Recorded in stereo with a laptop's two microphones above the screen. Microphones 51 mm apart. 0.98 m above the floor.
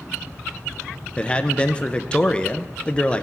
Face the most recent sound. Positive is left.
turn(degrees=20)  # may be behind; listen again after turning